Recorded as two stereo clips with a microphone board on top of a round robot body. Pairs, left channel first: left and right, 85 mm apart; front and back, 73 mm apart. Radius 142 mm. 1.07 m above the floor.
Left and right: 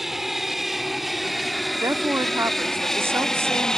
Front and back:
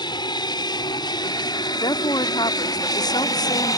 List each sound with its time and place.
0.0 s an aircraft: straight ahead; by 3.8 s 10° left
1.8 s a woman speaking: 25° right